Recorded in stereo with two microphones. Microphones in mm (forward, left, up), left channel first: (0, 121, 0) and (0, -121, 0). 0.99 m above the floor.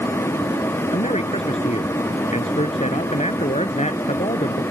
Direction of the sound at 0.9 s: 30° left (ahead or behind).